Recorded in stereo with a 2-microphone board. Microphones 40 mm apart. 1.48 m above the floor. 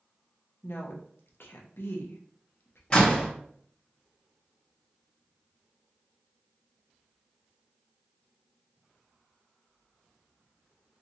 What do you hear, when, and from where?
0.6 s a woman speaking: 70° left (ahead or behind), 0.8 m
2.9 s a door slam: 20° left (ahead or behind), 1.3 m